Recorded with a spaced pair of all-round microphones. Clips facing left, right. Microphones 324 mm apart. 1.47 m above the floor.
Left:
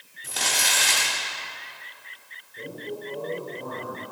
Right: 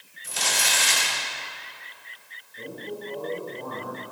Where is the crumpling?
65° left (ahead or behind), 4 m.